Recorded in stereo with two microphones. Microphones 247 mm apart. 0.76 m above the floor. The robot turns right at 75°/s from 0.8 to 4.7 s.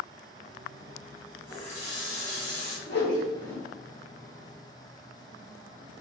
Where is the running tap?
10° left, 1.0 m; by 2.8 s 110° left, 1.0 m.